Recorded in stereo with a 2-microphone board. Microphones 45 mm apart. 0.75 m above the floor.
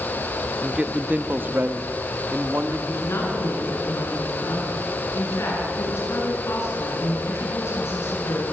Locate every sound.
0.6 s a man speaking: 20° right (ahead or behind), 1.2 m; by 2.8 s 55° right (ahead or behind), 2 m
2.9 s a woman speaking: 65° left (ahead or behind), 9.5 m